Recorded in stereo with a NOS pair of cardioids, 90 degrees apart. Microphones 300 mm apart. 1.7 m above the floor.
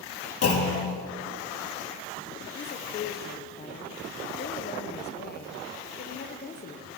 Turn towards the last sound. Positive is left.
turn(degrees=30)